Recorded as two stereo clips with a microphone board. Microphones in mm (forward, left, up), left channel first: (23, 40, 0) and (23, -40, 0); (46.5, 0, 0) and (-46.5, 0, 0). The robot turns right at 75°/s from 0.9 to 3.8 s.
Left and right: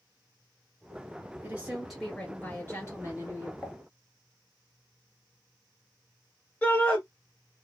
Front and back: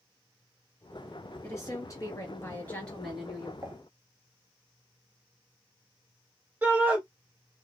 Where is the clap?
I don't hear a clap.